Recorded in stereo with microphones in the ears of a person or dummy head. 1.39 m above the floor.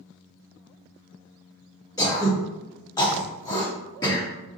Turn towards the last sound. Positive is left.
turn(degrees=20)  # may be behind; listen again after turning